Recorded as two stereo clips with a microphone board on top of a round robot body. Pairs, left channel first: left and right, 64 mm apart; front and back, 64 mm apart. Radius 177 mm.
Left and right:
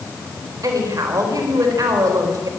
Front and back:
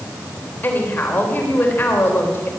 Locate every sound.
0.6 s a woman speaking: 60° right, 3.5 m